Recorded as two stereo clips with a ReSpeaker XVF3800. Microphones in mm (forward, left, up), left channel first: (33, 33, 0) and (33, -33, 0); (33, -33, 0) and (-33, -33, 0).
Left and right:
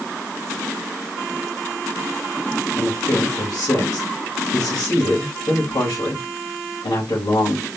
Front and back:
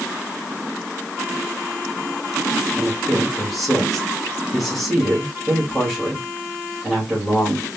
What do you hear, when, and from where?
2.8 s a man speaking: 90° left, 2.5 m